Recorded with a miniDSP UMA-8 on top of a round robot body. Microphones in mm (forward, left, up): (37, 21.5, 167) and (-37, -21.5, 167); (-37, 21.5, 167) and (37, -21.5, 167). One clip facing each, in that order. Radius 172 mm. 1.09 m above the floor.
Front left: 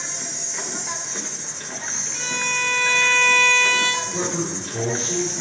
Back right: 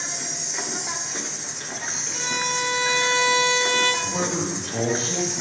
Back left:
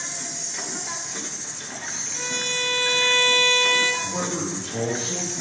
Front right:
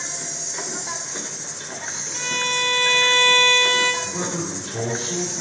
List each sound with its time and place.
0.0 s an insect: 75° right, 1.5 m
2.1 s a violin: 85° right, 3 m
4.0 s a man speaking: 165° right, 2.5 m